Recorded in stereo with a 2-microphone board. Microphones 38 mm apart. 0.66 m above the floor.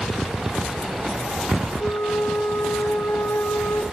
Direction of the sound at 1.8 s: 70° left (ahead or behind).